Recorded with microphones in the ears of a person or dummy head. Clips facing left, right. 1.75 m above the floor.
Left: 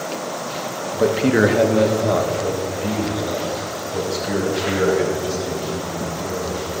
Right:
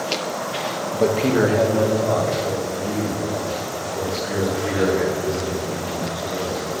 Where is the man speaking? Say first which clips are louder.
Left 2 dB; 5° right (ahead or behind), 0.8 m; by 6.7 s 55° left (ahead or behind), 8 m.